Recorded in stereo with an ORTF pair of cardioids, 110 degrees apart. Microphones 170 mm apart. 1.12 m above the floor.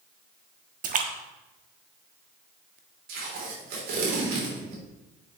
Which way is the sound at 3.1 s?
70° right.